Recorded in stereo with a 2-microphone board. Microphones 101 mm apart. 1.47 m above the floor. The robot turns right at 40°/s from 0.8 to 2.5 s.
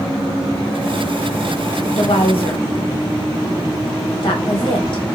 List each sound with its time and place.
1.9 s a woman speaking: 75° left (ahead or behind), 1.1 m; by 5.0 s 55° left (ahead or behind), 1.1 m